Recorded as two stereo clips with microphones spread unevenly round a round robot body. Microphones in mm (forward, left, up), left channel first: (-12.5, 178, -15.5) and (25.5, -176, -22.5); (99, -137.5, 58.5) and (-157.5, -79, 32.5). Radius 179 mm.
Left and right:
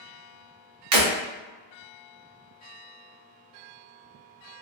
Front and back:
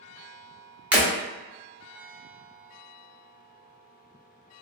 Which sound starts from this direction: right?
Breaking glass, at 0.9 s.